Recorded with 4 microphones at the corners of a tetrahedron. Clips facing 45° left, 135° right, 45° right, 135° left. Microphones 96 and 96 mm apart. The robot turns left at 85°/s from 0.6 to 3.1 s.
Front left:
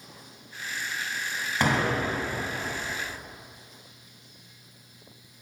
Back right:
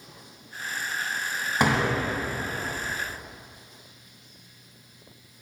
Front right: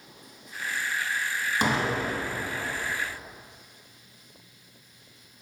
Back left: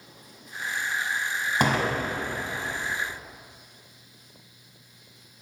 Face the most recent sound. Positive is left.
turn(degrees=25)